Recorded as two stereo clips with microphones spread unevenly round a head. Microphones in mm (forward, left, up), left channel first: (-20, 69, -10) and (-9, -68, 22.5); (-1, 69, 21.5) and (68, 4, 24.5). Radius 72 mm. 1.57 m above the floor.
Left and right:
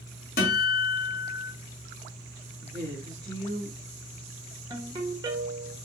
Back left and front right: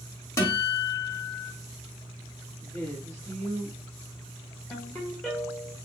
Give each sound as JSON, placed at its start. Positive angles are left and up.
{"t": 0.4, "sound": "a guitar", "azimuth_deg": 85, "distance_m": 1.8}
{"t": 2.6, "sound": "a woman speaking", "azimuth_deg": -155, "distance_m": 2.5}
{"t": 4.7, "sound": "a ringtone", "azimuth_deg": -140, "distance_m": 1.6}